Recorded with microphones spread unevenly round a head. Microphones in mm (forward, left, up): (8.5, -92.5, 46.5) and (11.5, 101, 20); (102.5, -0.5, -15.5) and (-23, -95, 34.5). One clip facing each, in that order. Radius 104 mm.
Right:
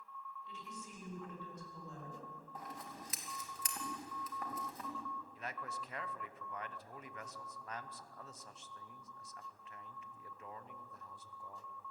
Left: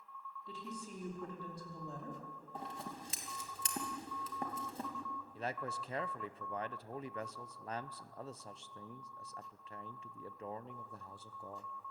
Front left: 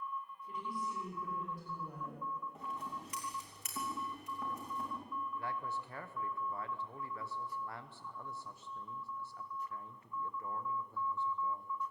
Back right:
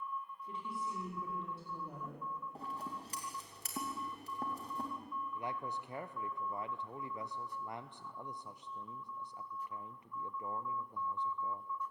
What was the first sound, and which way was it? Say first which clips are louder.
A woman speaking: left 8 dB, front left 1 dB; 145° left.